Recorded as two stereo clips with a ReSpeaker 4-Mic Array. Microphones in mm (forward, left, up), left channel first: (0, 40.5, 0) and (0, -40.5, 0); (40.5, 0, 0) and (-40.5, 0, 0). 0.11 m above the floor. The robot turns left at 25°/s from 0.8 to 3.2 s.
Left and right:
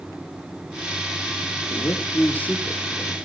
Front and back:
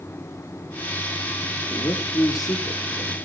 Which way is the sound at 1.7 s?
40° left.